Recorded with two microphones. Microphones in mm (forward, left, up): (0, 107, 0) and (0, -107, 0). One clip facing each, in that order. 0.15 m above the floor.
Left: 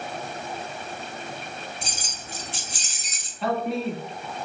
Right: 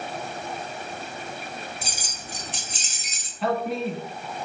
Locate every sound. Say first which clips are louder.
1.8 s keys jangling: even; 5° right (ahead or behind), 0.9 m; by 3.3 s 30° right (ahead or behind), 1.1 m
3.4 s a man speaking: even; centre (ahead or behind), 1.0 m